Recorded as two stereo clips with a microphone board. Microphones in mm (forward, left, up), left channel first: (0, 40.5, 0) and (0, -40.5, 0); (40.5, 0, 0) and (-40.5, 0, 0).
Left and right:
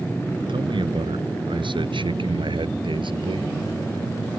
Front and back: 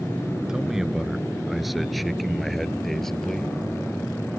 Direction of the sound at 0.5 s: 95° right.